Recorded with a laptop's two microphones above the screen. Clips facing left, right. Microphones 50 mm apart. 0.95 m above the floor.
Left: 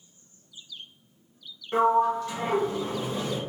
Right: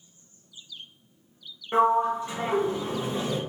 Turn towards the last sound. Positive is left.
turn(degrees=-20)  # may be behind; listen again after turning